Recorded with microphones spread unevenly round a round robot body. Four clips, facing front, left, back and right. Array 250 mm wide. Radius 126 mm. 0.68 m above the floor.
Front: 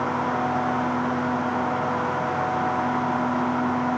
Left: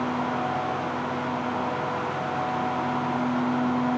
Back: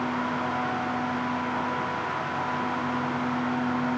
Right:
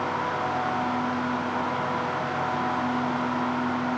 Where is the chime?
No chime in this recording.